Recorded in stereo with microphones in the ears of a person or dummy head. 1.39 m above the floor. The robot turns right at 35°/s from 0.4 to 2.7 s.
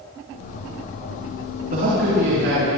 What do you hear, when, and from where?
1.7 s a man speaking: 135° right, 7 m; by 2.7 s 100° right, 7 m